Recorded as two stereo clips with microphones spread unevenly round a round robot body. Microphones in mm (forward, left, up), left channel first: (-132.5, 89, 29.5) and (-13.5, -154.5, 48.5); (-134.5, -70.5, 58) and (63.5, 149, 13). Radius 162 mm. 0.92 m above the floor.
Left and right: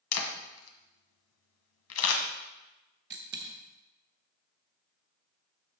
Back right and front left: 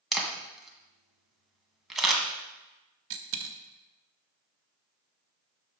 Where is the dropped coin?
5° right, 0.6 m.